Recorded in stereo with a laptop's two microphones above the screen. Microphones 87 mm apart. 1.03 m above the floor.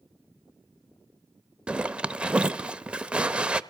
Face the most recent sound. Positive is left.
turn(degrees=-10)  # may be behind; listen again after turning